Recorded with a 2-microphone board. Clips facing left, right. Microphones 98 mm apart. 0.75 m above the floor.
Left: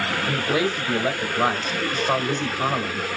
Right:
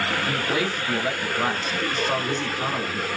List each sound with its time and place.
0.3 s a man speaking: 20° left (ahead or behind), 1.2 m